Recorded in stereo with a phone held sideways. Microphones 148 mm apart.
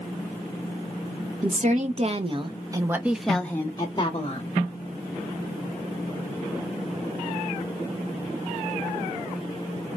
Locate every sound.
1.4 s a woman speaking: 55° right (ahead or behind), 1.2 m; by 4.6 s 45° left (ahead or behind), 1.0 m